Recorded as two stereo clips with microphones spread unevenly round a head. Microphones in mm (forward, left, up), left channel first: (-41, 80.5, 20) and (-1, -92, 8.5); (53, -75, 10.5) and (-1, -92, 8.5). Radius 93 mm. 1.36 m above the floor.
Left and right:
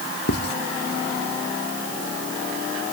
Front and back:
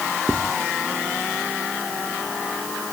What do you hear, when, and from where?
0.3 s writing: 130° left